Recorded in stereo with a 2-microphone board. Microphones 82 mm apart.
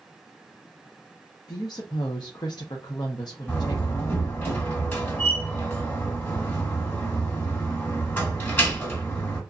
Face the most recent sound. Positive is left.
turn(degrees=25)  # may be behind; listen again after turning